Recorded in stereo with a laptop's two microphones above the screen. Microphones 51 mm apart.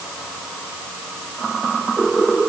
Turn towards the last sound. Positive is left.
No sound to turn to.